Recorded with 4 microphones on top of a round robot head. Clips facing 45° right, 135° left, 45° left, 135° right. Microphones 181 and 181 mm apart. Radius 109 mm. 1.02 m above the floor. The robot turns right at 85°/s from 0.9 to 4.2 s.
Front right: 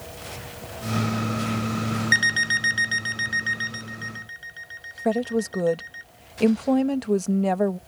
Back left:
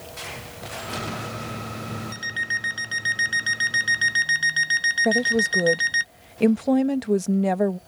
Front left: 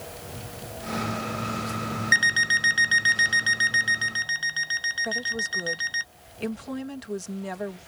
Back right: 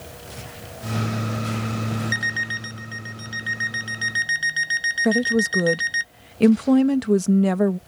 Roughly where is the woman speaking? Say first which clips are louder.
Back left 1 dB, back right 14 dB; behind right.